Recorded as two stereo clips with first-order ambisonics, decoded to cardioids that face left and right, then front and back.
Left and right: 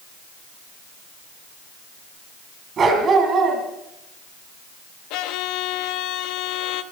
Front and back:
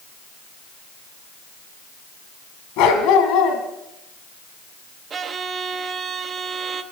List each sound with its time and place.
2.8 s a dog barking: 25° right, 2.5 m
5.1 s a violin: 115° left, 1.0 m